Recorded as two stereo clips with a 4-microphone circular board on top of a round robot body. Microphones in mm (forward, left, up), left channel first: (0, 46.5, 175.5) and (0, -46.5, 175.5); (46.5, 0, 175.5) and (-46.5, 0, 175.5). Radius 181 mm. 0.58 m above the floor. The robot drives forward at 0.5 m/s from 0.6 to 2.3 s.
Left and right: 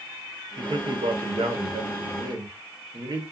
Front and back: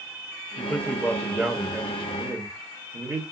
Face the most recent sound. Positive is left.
turn(degrees=-125)